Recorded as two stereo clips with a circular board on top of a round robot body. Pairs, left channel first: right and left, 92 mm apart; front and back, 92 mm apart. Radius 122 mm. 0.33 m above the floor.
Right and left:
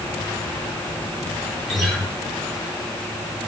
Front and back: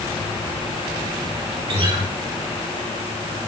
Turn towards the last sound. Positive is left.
turn(degrees=-175)